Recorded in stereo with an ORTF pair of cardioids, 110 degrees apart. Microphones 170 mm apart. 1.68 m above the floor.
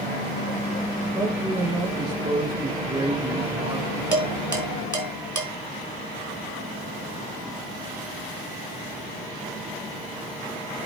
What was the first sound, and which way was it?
A man speaking, 35° right.